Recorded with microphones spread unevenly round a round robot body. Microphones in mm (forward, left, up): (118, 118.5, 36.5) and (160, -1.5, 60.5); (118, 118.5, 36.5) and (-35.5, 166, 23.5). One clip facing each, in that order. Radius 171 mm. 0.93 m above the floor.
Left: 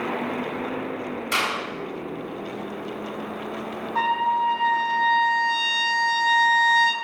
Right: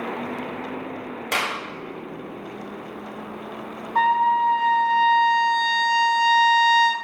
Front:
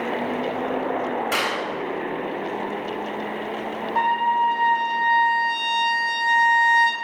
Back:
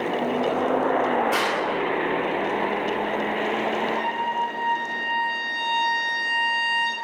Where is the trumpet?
40° right, 1.6 m.